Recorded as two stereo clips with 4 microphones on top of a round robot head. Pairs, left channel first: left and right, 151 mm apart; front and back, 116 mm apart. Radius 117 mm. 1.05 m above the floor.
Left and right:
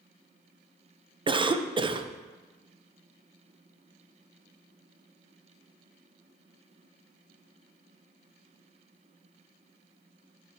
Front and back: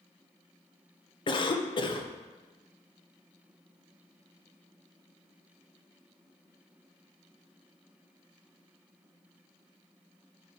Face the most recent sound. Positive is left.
turn(degrees=-35)